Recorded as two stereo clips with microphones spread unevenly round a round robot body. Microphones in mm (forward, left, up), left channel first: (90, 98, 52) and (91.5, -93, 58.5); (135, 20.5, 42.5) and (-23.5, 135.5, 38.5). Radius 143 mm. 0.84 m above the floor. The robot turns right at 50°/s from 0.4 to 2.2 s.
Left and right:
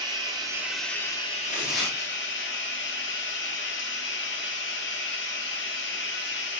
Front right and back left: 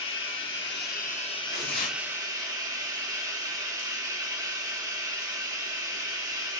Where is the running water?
20° right, 1.1 m; by 6.6 s 70° left, 1.1 m.